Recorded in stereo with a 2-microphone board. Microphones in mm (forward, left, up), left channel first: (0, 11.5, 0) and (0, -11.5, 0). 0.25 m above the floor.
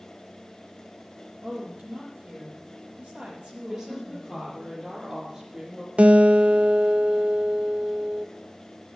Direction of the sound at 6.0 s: 80° right.